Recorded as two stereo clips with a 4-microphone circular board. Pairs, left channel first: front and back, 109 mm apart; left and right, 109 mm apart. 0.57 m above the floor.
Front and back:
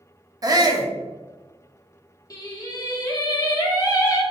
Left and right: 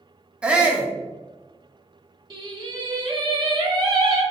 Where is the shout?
165° right, 0.7 m.